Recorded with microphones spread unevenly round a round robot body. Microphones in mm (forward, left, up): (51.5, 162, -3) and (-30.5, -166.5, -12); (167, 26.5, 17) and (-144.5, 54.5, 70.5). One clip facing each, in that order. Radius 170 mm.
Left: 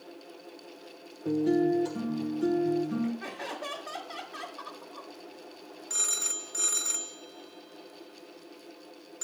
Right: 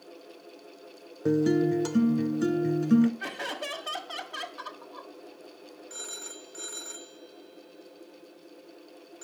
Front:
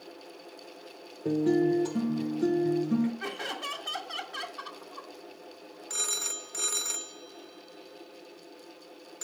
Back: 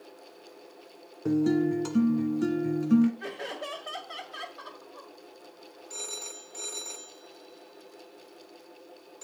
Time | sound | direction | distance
1.2 | a guitar | 120° right | 1.3 m
3.2 | laughter | 60° right | 1.7 m
5.9 | a phone ringing | 20° left | 0.6 m